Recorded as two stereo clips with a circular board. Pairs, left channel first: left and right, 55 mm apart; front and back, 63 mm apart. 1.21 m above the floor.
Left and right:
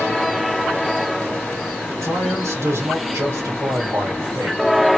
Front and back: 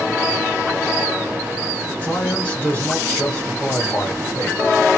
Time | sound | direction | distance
2.0 | a man speaking | 70° right | 4 m